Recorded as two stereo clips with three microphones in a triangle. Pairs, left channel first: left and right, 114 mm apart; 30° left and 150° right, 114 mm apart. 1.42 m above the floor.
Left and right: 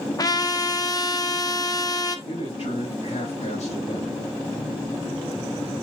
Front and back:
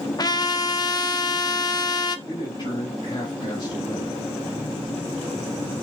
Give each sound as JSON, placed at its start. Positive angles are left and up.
{"t": 0.2, "sound": "a trumpet", "azimuth_deg": 55, "distance_m": 1.0}
{"t": 2.3, "sound": "a man speaking", "azimuth_deg": 75, "distance_m": 3.5}